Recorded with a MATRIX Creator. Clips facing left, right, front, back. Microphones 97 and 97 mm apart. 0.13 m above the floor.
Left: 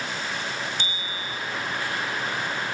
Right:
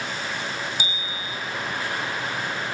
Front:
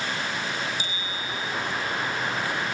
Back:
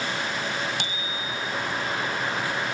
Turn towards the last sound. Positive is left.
turn(degrees=-170)